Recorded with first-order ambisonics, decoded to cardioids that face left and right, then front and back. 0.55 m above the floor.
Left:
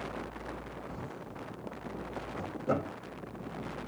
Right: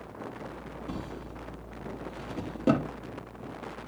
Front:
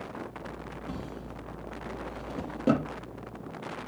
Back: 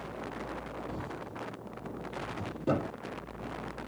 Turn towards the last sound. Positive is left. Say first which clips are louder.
# right 3 dB, back 1 dB
turn(degrees=-55)